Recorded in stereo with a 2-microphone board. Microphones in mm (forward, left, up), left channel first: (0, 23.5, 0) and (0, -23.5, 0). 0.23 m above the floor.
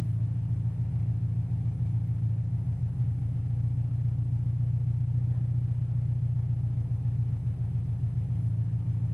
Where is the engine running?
45° left (ahead or behind), 1.7 m.